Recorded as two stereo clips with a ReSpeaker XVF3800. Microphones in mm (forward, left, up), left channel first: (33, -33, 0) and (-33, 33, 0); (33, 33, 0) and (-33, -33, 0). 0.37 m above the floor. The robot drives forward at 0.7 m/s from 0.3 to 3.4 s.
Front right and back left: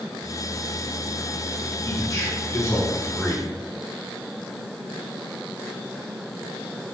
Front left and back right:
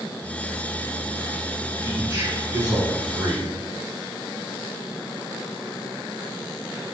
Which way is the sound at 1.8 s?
85° right.